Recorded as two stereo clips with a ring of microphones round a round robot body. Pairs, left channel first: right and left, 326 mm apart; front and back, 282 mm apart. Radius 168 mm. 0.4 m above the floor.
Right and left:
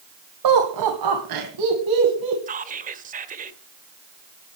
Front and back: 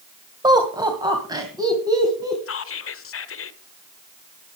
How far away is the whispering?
About 1.5 m.